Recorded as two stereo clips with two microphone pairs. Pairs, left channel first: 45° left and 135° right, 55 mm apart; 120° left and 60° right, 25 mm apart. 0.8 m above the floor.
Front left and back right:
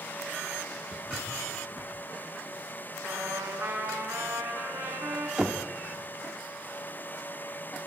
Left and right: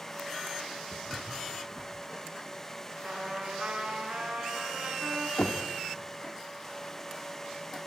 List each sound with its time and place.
0.9 s footsteps: 175° left, 6 m
3.0 s a trumpet: 105° right, 5.5 m
5.4 s knocking: 145° left, 1.6 m